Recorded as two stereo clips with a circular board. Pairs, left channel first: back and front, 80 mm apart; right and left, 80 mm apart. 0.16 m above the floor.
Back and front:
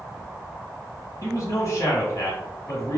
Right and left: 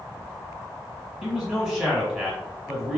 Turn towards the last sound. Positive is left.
turn(degrees=165)